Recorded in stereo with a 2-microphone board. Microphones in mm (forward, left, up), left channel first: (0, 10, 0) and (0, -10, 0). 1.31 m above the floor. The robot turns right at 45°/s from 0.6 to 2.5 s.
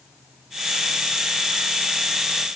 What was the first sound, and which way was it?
Only background noise.